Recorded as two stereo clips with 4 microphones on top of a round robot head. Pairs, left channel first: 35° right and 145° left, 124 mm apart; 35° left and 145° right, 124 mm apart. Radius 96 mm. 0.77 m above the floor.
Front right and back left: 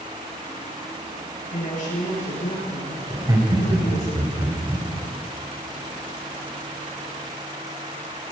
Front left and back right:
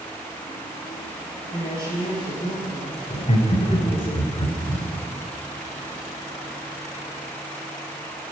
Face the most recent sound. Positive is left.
turn(degrees=80)